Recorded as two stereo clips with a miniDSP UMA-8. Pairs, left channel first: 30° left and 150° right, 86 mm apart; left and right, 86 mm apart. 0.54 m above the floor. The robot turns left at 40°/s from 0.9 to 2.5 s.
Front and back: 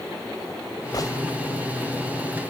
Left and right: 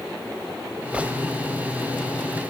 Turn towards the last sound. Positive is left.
turn(degrees=-75)